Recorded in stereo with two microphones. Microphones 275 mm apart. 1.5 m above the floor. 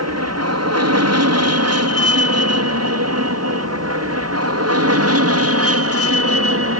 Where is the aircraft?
65° right (ahead or behind); by 6.8 s 55° right (ahead or behind).